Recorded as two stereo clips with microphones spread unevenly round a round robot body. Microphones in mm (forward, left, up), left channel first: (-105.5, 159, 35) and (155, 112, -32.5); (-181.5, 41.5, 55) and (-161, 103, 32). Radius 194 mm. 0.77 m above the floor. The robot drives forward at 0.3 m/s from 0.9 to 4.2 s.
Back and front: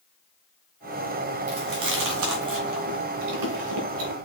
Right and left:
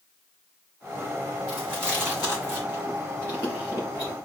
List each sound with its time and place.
1.5 s chewing: 20° right, 1.8 m; by 4.2 s 35° right, 1.1 m